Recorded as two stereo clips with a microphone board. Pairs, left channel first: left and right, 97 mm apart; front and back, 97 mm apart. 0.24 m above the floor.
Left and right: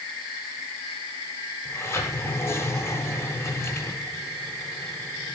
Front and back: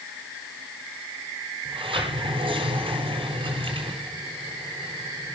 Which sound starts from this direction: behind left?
A sliding door, at 1.6 s.